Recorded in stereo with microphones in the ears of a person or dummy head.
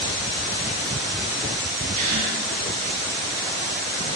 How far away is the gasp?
About 1.8 m.